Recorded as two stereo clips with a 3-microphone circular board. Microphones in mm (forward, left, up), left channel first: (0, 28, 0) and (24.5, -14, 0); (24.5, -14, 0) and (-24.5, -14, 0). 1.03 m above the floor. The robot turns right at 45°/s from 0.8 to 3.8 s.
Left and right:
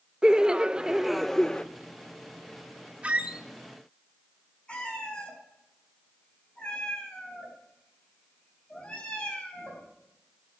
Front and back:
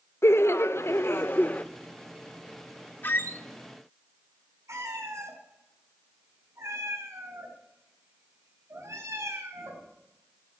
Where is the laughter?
15° left, 0.5 m; by 1.6 s 50° left, 0.5 m.